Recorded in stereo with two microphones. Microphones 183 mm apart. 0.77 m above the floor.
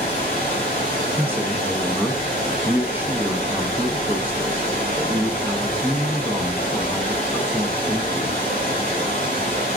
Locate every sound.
0.0 s running water: 45° right (ahead or behind), 2.5 m
1.2 s a man speaking: 10° right (ahead or behind), 0.6 m